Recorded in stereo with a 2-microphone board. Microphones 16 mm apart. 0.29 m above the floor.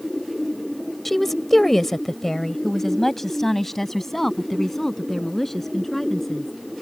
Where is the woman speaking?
10° left (ahead or behind); by 6.5 s 20° left (ahead or behind).